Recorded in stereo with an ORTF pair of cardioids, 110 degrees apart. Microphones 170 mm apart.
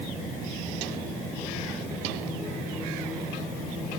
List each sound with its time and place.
Only background noise.